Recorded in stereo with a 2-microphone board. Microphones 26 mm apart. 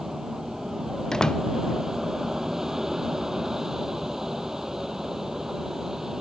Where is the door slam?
25° left (ahead or behind).